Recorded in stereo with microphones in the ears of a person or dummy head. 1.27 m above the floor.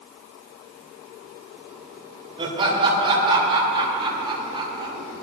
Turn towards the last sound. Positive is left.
turn(degrees=-25)  # may be behind; listen again after turning